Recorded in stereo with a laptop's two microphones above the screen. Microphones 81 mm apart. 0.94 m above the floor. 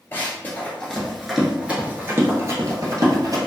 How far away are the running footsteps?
About 1.1 m.